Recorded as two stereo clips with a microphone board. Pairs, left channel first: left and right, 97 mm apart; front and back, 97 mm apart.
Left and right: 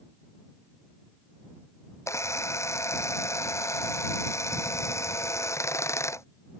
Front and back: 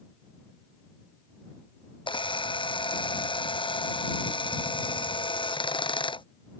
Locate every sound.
2.1 s a camera shutter: 30° left